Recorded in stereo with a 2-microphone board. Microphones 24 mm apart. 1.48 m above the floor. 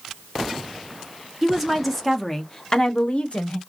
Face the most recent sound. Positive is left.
turn(degrees=65)  # may be behind; listen again after turning